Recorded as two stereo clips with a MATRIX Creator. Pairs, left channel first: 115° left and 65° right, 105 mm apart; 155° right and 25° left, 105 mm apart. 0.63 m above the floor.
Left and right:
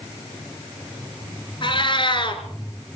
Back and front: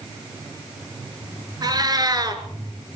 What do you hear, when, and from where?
1.6 s a cat meowing: 75° left, 2 m